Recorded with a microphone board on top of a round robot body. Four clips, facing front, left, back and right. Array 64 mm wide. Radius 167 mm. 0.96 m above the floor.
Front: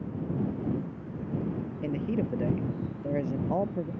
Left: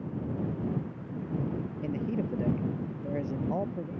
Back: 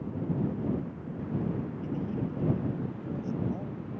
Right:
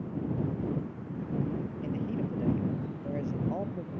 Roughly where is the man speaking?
Ahead.